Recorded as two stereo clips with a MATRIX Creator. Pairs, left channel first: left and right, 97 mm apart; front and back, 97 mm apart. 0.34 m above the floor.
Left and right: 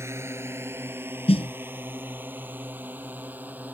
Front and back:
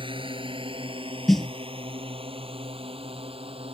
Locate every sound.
0.0 s a drone: 150° right; by 3.7 s 165° right
1.3 s a snare drum: 90° left